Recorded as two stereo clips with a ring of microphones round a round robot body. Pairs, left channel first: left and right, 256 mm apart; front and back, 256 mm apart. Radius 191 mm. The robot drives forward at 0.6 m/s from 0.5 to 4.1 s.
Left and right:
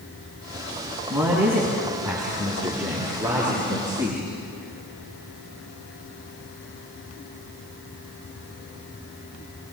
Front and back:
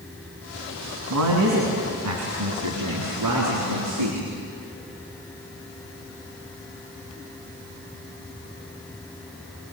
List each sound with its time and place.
1.1 s a man speaking: 175° right, 3 m